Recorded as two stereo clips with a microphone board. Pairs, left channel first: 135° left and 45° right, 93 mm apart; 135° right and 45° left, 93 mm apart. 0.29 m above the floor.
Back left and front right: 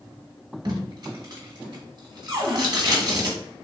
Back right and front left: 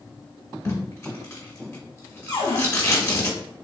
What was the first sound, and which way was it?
Tape being pulled, 80° right.